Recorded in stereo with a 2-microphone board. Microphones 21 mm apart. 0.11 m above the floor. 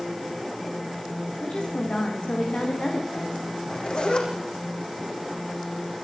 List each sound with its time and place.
1.4 s a woman speaking: 60° left (ahead or behind), 7 m
3.6 s a zipper: 45° left (ahead or behind), 5.5 m